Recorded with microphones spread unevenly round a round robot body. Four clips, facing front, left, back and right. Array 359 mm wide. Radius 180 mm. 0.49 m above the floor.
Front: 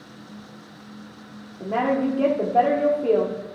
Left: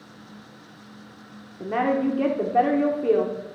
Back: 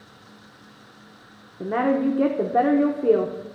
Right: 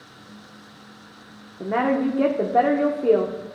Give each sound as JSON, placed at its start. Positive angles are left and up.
{"t": 1.6, "sound": "a woman speaking", "azimuth_deg": -165, "distance_m": 0.9}